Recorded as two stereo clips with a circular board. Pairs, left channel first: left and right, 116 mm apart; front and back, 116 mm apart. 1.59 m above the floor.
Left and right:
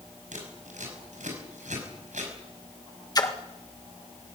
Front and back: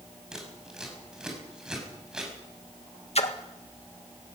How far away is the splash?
About 1.7 m.